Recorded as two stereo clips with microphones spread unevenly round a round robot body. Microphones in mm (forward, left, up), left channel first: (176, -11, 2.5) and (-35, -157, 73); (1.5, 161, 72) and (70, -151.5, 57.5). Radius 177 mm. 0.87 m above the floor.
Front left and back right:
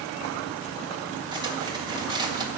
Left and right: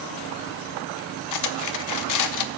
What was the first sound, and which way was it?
Cutlery clinking, 140° left.